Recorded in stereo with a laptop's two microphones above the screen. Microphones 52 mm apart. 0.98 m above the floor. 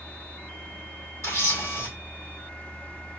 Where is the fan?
25° left (ahead or behind), 1.0 m.